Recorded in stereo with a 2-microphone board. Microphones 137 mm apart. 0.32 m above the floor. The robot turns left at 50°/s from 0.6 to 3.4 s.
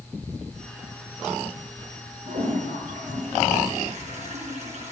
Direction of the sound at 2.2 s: 65° right.